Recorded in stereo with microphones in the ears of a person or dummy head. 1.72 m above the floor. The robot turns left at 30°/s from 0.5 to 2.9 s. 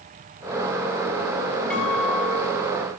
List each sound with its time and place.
1.7 s a guitar: 5° left (ahead or behind), 4.5 m; by 2.6 s 20° right (ahead or behind), 4.5 m